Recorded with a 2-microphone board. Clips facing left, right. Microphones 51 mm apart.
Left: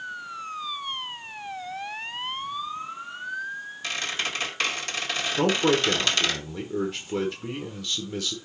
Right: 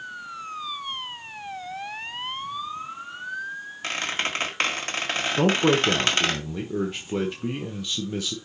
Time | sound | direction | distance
3.8 | a squeak | 40° right (ahead or behind) | 1.8 m
5.4 | a man speaking | 15° right (ahead or behind) | 1.1 m